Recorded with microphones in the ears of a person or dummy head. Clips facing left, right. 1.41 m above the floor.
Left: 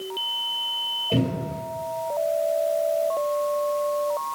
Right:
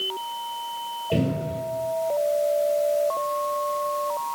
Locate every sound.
1.1 s a cupboard door: 5° right (ahead or behind), 1.5 m